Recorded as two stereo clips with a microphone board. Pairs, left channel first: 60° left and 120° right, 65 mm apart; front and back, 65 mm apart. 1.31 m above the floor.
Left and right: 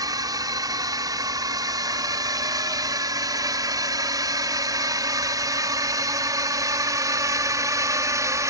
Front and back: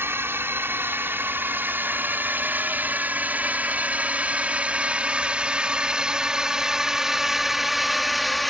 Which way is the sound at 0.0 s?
130° right.